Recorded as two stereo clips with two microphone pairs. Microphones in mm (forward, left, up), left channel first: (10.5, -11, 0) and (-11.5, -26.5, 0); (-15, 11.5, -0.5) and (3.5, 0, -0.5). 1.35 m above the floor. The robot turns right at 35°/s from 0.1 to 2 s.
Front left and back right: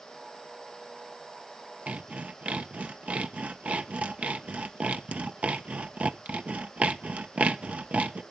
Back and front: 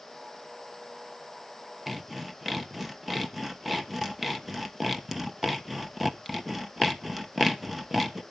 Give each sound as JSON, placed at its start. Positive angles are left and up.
{"t": 1.9, "sound": "sawing", "azimuth_deg": -120, "distance_m": 1.2}